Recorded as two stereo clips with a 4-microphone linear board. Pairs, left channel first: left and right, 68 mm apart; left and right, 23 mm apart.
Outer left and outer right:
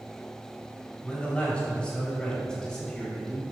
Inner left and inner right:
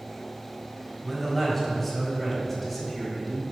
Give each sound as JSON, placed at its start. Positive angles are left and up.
{"t": 1.0, "sound": "a man speaking", "side_deg": 15, "distance_m": 4.0}